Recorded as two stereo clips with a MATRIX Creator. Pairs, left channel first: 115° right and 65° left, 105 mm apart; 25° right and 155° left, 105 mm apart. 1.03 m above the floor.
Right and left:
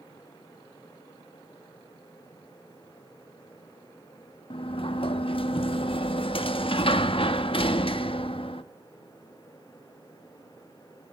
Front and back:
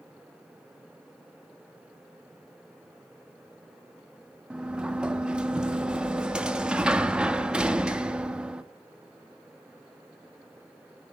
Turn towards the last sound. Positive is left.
turn(degrees=-120)